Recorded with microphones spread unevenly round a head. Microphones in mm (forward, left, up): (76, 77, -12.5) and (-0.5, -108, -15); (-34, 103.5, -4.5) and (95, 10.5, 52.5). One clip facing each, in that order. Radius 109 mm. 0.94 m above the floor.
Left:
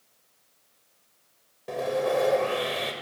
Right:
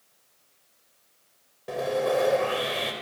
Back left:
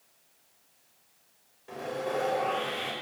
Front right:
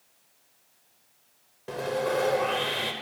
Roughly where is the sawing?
Ahead right.